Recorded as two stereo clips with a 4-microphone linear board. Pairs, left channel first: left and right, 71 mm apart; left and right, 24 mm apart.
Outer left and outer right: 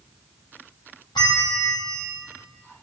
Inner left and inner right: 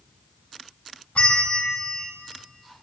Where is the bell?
75° left (ahead or behind), 5 m.